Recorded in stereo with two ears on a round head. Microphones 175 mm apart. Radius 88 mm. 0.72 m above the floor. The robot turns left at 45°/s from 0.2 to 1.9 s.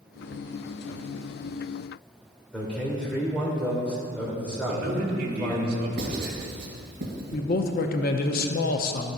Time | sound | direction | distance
2.5 | a man speaking | 5° left (ahead or behind) | 2.5 m
4.7 | a man speaking | 50° right (ahead or behind) | 2 m
6.0 | writing | 45° right (ahead or behind) | 2 m
7.3 | a man speaking | 55° left (ahead or behind) | 0.7 m